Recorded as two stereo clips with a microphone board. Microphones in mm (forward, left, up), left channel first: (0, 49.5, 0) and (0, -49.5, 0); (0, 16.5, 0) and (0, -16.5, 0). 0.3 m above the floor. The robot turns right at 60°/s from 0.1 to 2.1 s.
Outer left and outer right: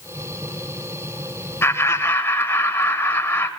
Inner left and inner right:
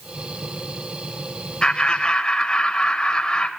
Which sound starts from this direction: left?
Laughter, at 1.6 s.